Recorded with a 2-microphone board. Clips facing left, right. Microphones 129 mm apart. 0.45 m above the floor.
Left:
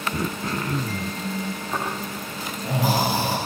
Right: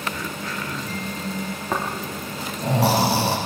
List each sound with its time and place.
0.1 s throat clearing: 40° left (ahead or behind), 0.7 m
1.7 s snoring: 90° right, 6 m